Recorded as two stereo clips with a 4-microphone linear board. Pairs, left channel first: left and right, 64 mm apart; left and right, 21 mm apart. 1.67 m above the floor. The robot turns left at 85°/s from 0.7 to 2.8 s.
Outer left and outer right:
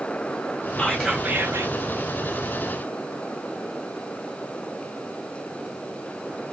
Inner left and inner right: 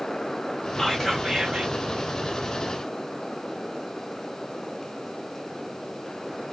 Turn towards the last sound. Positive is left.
turn(degrees=-155)